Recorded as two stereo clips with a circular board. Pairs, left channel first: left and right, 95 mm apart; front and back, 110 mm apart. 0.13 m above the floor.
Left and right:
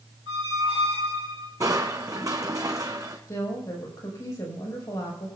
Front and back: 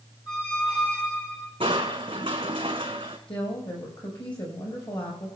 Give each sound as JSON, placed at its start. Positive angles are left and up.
{"t": 0.3, "sound": "a squeak", "azimuth_deg": -55, "distance_m": 7.0}
{"t": 1.6, "sound": "crushing", "azimuth_deg": -140, "distance_m": 2.0}
{"t": 3.3, "sound": "a woman speaking", "azimuth_deg": 35, "distance_m": 5.0}